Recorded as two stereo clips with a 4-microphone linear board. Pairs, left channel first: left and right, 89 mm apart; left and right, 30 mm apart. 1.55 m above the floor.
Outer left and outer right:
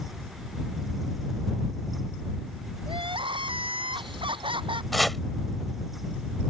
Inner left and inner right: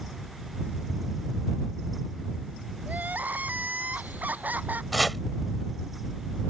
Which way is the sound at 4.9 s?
Centre (ahead or behind).